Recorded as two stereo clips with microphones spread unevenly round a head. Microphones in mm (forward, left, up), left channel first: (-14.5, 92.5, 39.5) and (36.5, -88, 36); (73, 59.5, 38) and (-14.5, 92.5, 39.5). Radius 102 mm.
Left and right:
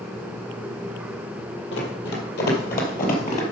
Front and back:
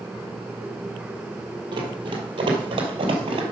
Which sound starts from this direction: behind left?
Running footsteps, at 1.7 s.